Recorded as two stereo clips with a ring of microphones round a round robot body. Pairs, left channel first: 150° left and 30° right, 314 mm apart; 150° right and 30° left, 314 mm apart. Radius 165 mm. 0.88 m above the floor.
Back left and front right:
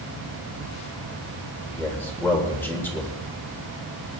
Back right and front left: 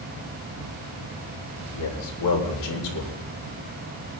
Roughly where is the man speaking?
Behind right.